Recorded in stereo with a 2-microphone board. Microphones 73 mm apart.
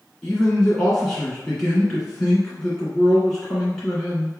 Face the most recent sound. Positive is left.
turn(degrees=5)  # may be behind; listen again after turning